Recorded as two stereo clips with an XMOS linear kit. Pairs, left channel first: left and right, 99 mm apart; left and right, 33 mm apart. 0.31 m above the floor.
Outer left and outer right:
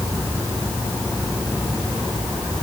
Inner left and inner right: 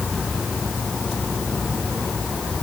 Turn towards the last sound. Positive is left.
No sound to turn to.